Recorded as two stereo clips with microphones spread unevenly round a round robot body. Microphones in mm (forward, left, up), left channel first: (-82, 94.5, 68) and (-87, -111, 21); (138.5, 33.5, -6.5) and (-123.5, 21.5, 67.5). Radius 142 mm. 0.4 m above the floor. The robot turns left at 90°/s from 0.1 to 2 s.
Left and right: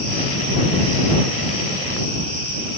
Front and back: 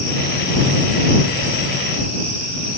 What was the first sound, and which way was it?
Only background noise.